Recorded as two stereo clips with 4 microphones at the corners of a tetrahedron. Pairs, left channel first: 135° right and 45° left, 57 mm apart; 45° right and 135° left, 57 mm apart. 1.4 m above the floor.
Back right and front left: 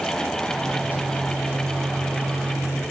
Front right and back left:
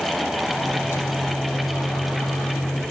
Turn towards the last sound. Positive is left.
turn(degrees=-20)